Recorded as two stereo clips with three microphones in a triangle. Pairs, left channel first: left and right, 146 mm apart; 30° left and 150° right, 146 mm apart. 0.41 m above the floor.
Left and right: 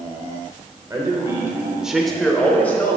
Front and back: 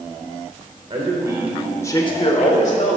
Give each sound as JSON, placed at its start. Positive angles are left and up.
{"t": 0.9, "sound": "a man speaking", "azimuth_deg": -145, "distance_m": 1.0}